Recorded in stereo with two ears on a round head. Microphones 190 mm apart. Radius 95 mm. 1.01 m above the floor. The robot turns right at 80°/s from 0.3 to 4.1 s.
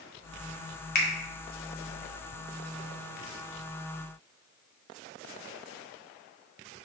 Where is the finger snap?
45° left (ahead or behind), 1.0 m; by 1.1 s 55° left (ahead or behind), 1.0 m.